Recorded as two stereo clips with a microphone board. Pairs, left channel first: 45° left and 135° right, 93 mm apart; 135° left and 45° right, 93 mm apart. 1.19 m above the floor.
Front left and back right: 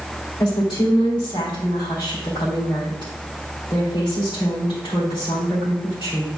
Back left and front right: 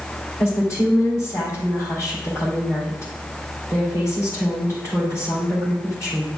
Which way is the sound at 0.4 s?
85° left.